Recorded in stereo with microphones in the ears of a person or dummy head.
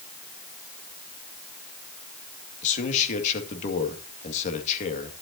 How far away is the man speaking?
About 2 m.